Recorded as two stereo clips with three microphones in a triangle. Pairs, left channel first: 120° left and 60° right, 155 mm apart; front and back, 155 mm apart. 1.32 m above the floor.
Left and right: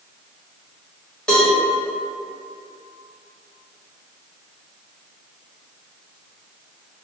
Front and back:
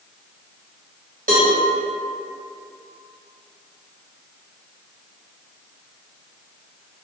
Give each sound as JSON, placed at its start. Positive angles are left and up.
{"t": 1.3, "sound": "a cowbell", "azimuth_deg": -155, "distance_m": 1.0}